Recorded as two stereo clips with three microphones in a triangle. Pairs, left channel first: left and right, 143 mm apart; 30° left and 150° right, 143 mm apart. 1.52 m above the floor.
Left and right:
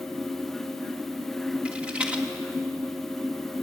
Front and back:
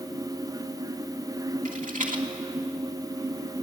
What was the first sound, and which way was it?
A rattle, 170° right.